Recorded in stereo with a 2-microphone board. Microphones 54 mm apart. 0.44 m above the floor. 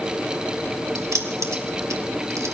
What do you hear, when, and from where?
0.9 s keys jangling: 75° right (ahead or behind), 1.7 m